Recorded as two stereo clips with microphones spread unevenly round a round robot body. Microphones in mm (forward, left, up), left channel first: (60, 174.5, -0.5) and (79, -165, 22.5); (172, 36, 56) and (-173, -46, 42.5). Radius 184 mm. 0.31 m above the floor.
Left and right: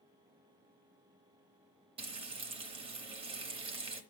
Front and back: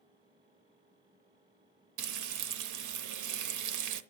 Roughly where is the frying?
Behind.